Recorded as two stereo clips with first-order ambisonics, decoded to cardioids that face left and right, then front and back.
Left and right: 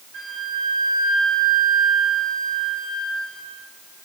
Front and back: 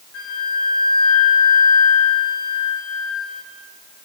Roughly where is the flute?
Ahead right.